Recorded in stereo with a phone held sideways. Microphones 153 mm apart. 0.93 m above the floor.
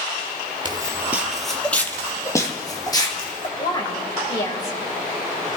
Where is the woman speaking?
30° left (ahead or behind), 3.5 m.